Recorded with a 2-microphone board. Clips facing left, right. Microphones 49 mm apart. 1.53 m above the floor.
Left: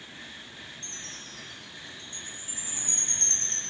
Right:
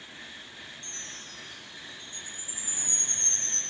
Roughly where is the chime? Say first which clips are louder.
Even; left.